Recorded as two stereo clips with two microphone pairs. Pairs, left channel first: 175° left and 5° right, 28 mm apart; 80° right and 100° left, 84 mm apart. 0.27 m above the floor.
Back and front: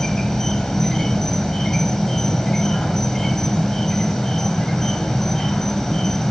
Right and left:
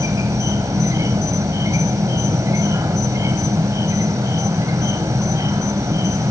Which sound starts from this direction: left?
An insect, at 0.0 s.